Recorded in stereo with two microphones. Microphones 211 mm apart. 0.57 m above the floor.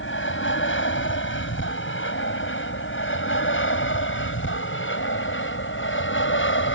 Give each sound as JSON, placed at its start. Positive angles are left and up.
{"t": 0.0, "sound": "an aircraft", "side_deg": 65}